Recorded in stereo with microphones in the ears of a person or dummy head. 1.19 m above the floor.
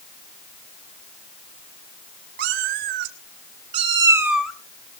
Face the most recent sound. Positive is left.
turn(degrees=5)  # may be behind; listen again after turning